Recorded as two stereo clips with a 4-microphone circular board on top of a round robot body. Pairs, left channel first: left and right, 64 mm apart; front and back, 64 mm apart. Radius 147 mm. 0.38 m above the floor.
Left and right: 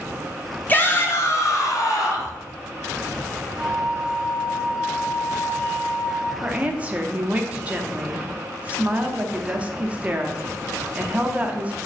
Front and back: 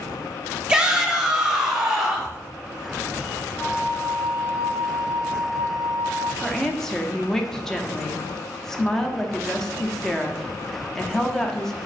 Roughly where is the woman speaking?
Right.